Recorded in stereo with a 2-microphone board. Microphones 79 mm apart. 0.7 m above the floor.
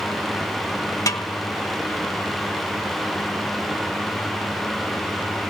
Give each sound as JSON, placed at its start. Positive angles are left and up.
{"t": 1.1, "sound": "a snare drum", "side_deg": 45, "distance_m": 1.9}